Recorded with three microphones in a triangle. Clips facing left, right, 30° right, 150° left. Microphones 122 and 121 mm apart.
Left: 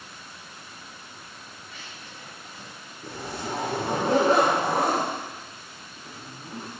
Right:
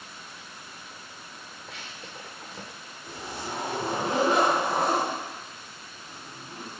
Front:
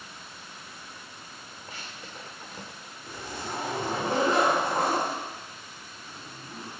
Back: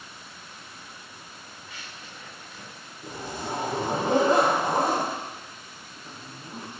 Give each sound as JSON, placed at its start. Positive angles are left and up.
{"t": 1.7, "sound": "running footsteps", "azimuth_deg": -75, "distance_m": 3.0}
{"t": 3.0, "sound": "a zipper", "azimuth_deg": 105, "distance_m": 5.5}